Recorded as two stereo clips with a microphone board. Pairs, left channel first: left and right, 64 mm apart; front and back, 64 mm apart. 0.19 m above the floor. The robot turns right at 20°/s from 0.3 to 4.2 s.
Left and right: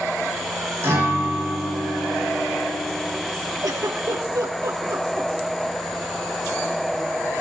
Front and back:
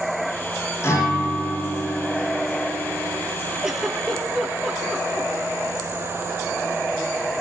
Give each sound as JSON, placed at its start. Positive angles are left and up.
{"t": 0.8, "sound": "a guitar", "azimuth_deg": -45, "distance_m": 8.5}
{"t": 3.6, "sound": "a giggle", "azimuth_deg": -100, "distance_m": 3.0}